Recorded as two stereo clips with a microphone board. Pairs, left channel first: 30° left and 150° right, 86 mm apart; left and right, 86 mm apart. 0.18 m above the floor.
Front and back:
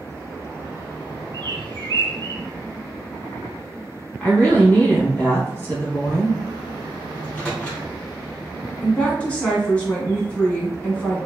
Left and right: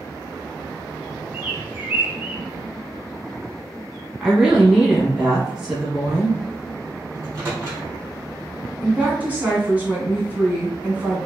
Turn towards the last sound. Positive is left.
turn(degrees=-35)